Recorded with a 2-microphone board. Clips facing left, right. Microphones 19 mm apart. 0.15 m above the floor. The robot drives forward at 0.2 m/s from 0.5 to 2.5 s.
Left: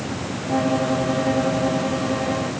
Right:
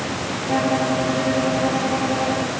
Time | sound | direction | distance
0.5 | a violin | 10° right (ahead or behind) | 3.5 m